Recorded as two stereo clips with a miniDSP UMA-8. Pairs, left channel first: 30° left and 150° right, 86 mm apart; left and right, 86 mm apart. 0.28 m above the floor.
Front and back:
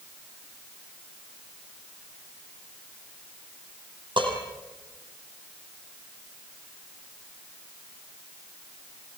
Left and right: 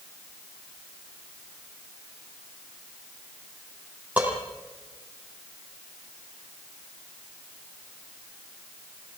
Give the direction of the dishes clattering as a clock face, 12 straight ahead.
5 o'clock.